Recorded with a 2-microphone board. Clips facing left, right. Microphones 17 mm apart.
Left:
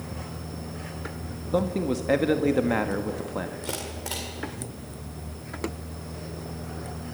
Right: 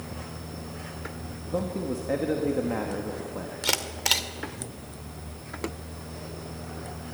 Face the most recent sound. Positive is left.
turn(degrees=-75)  # may be behind; listen again after turning